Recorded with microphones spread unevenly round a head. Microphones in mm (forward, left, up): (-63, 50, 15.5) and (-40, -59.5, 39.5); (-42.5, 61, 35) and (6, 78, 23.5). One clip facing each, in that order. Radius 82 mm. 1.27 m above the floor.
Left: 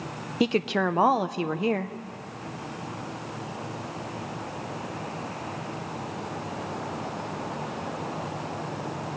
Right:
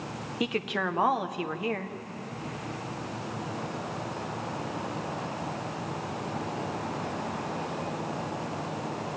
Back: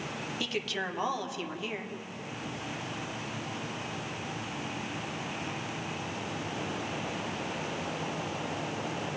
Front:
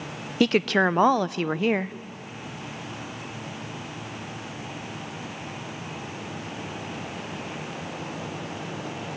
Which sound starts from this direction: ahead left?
A woman speaking, at 0.4 s.